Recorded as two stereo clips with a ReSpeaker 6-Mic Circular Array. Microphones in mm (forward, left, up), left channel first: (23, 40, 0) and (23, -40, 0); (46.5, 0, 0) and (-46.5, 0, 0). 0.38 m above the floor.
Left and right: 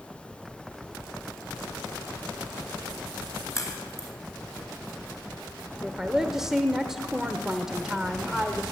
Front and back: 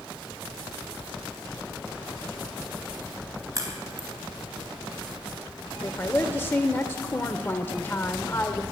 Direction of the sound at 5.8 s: 15° right.